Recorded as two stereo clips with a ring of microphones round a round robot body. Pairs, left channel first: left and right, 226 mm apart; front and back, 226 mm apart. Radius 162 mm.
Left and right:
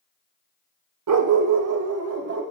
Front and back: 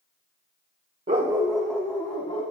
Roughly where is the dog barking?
Right.